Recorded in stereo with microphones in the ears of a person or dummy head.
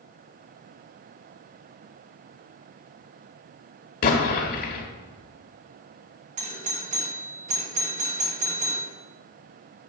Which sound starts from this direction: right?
A doorbell, at 6.4 s.